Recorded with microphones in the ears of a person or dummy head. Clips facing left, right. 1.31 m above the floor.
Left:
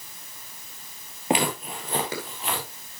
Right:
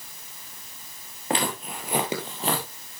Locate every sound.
1.3 s footsteps: 15° left (ahead or behind), 1.8 m; by 2.7 s 40° right (ahead or behind), 2.5 m